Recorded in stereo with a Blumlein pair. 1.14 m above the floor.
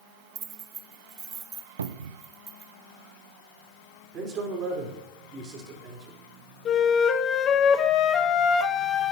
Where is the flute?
25° left, 0.9 m.